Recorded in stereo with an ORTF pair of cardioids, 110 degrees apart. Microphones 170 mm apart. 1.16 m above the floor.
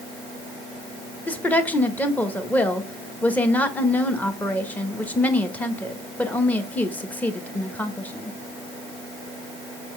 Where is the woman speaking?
10° left, 1.2 m.